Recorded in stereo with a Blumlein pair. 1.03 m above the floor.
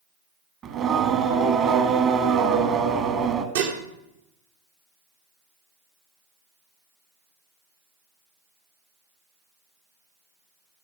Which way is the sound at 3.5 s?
55° right.